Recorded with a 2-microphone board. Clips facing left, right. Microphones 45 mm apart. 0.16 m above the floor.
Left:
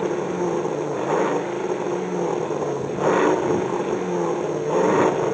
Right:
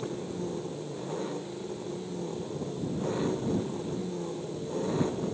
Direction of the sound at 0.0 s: 60° left (ahead or behind).